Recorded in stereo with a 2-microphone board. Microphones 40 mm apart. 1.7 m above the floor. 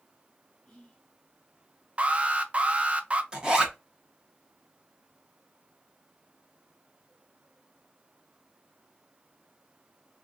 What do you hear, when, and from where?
0.7 s whispering: 20° left (ahead or behind), 0.6 m
2.0 s an alarm: 30° right (ahead or behind), 0.5 m
3.3 s a zipper: 20° right (ahead or behind), 1.1 m